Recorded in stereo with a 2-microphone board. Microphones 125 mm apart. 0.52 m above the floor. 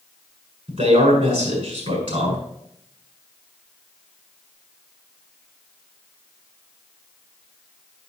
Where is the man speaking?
50° right (ahead or behind), 6 m.